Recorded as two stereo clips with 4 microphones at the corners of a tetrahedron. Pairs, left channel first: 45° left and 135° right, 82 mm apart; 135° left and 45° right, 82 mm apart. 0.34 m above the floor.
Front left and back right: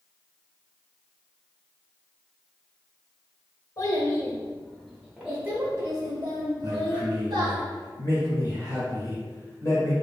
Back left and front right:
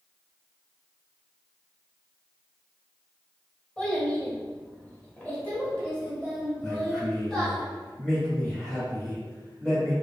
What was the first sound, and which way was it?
A child speaking, 60° left.